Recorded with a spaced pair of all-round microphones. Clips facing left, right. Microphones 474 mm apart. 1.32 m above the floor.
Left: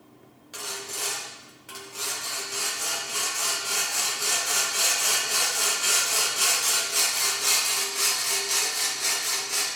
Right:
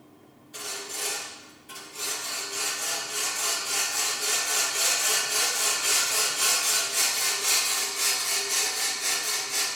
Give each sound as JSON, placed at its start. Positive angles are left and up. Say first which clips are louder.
{"t": 0.5, "sound": "sawing", "louder": "left 1 dB", "side_deg": 70, "distance_m": 1.2}